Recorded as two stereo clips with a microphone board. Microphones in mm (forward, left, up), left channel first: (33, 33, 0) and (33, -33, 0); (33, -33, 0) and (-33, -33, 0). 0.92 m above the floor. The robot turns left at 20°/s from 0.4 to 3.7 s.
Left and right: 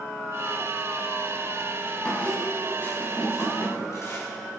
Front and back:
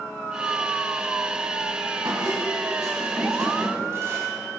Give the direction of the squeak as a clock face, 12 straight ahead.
6 o'clock.